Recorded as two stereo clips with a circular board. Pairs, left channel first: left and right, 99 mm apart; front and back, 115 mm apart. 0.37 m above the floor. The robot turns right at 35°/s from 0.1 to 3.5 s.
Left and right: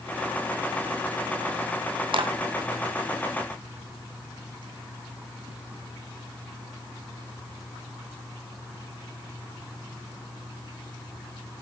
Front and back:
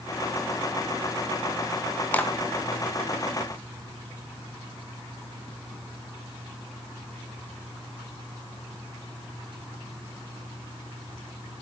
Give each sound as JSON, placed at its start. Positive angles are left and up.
{"t": 2.1, "sound": "a clap", "azimuth_deg": -75, "distance_m": 2.5}